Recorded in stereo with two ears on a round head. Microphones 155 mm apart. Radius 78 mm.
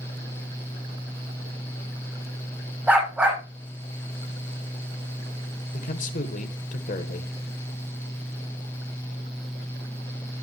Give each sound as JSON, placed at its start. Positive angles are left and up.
{"t": 2.9, "sound": "a dog barking", "side_deg": -10, "distance_m": 9.0}
{"t": 5.7, "sound": "a man speaking", "side_deg": 45, "distance_m": 1.4}